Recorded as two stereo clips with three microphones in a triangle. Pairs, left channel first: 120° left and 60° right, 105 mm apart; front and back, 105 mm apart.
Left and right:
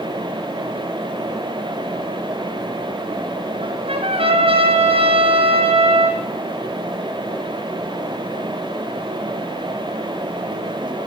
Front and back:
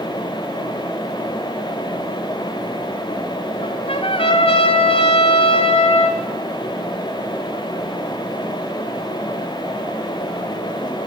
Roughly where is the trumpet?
Ahead right.